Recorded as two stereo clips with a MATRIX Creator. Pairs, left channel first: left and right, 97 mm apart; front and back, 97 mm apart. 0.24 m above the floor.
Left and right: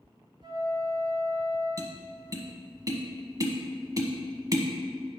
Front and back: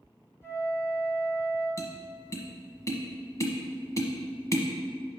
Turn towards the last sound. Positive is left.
turn(degrees=-50)